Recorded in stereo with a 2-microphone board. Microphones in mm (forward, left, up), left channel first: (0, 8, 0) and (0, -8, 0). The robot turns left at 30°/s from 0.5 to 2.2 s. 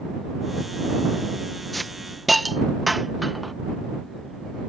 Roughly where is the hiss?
Centre.